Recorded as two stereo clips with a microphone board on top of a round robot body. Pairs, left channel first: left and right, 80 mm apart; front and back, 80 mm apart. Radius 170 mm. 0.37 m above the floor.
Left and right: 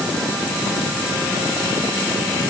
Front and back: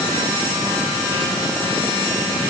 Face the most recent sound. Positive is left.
No sound to turn to.